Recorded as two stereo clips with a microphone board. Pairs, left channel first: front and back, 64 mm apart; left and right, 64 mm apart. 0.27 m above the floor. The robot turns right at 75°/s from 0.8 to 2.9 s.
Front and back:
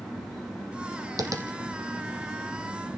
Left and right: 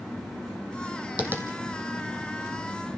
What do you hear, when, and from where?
1.2 s tapping: 160° right, 1.9 m; by 1.5 s 140° right, 1.9 m